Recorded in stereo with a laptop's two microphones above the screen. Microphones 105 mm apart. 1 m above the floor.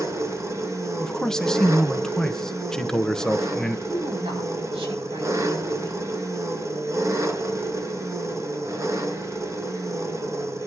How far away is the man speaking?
About 1.0 m.